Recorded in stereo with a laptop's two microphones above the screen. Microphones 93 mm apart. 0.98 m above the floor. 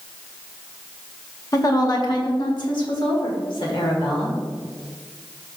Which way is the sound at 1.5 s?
40° left (ahead or behind).